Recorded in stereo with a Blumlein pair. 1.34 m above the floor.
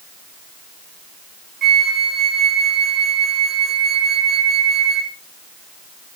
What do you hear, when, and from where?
1.6 s a flute: 15° right, 0.6 m